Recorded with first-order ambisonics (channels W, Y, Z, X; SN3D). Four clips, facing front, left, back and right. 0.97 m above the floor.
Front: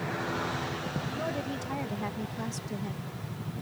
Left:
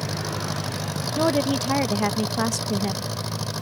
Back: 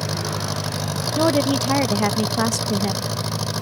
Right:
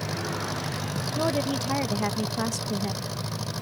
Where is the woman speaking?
160° left.